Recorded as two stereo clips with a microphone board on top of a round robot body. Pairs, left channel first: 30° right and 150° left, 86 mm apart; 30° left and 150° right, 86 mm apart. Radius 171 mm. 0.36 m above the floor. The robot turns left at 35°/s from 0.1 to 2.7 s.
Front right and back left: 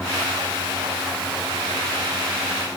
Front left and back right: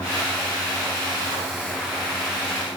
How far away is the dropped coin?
I don't hear a dropped coin.